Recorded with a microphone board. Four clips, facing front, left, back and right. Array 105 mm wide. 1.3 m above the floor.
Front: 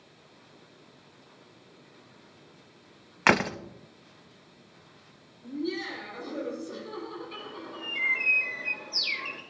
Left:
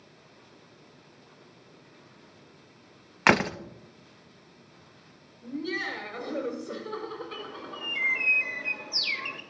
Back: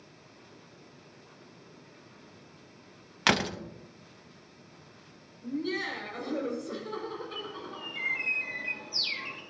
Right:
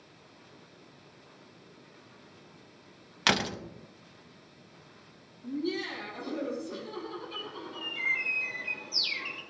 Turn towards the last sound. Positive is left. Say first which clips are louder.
# left 2 dB, even
turn(degrees=60)